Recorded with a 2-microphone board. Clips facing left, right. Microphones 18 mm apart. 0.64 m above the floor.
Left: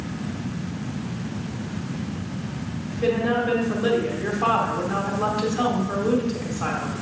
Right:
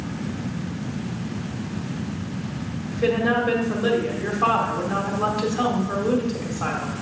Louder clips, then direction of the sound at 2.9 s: Right 1 dB; 20° right (ahead or behind).